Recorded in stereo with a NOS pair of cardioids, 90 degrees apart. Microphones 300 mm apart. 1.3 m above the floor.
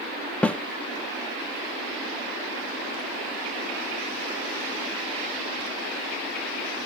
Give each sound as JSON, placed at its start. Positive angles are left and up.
{"t": 0.4, "sound": "a snare drum", "azimuth_deg": 5, "distance_m": 0.5}